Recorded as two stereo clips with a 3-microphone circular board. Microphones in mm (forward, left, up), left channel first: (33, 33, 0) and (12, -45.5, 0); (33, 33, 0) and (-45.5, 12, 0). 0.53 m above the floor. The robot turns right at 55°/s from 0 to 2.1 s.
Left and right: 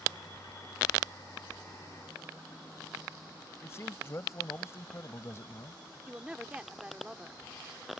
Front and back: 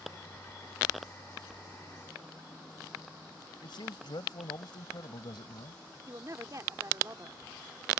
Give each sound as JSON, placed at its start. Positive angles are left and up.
{"t": 3.6, "sound": "a man speaking", "azimuth_deg": 20}
{"t": 6.1, "sound": "a woman speaking", "azimuth_deg": 180}